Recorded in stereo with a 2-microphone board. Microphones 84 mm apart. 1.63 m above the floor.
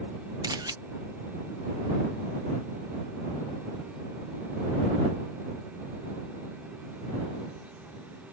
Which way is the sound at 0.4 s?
55° right (ahead or behind).